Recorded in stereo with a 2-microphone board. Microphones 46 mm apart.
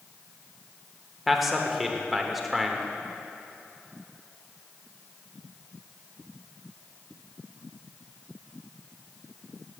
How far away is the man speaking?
About 0.8 m.